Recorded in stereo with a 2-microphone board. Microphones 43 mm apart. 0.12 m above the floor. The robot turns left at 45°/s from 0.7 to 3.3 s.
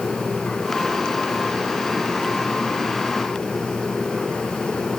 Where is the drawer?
I don't hear a drawer.